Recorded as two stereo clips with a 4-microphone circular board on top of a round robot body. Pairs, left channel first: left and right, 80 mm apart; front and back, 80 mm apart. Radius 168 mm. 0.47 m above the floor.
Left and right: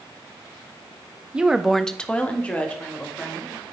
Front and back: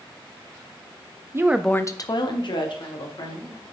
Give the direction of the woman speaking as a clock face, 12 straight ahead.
5 o'clock.